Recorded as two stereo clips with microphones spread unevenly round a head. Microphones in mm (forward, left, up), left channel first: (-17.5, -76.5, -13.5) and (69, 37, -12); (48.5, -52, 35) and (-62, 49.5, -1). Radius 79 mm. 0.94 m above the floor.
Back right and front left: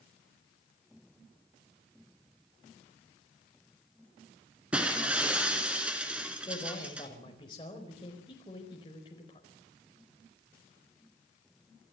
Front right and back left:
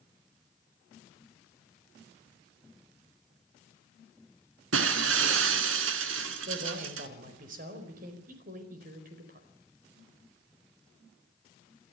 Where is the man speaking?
170° left, 4.5 m.